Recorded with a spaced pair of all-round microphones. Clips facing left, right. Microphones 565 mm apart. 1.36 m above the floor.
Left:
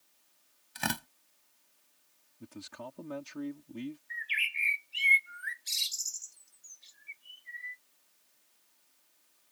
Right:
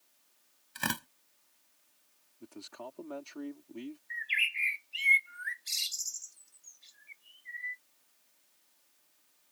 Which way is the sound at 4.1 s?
10° left (ahead or behind).